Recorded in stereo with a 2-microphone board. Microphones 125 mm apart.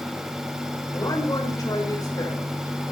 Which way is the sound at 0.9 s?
30° left (ahead or behind).